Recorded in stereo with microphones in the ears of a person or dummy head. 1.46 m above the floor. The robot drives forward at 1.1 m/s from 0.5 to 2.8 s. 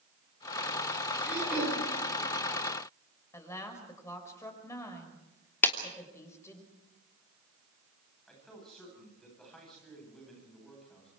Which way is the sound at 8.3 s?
5° left (ahead or behind).